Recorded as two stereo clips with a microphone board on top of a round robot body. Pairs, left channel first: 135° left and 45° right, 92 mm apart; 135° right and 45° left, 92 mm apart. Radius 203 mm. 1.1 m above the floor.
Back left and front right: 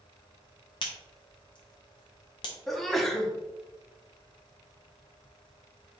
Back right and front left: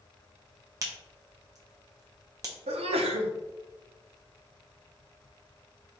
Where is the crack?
100° left, 0.6 m.